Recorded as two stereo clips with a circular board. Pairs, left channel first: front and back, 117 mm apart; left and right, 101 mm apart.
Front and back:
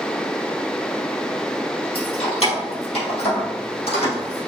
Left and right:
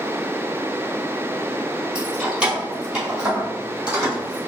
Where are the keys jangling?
10° right, 2.0 m; by 4.4 s 15° right, 4 m.